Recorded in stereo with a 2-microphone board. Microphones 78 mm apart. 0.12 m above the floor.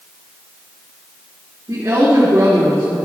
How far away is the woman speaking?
About 2.5 m.